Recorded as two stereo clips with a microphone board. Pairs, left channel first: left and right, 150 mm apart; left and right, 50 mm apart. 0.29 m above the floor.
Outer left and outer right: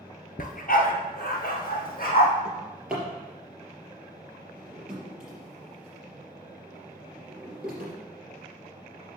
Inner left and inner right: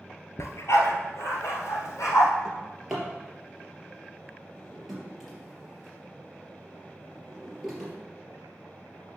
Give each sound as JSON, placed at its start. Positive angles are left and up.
{"t": 0.4, "sound": "a dog barking", "side_deg": 75, "distance_m": 1.0}
{"t": 2.5, "sound": "a drawer", "side_deg": -5, "distance_m": 3.5}